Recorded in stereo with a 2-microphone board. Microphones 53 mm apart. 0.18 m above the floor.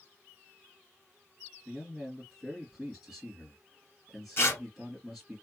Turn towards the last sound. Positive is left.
turn(degrees=45)  # may be behind; listen again after turning